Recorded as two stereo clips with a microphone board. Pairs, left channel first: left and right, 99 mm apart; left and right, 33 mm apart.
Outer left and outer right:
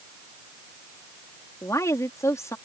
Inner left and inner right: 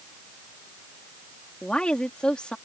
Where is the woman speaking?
30° left (ahead or behind).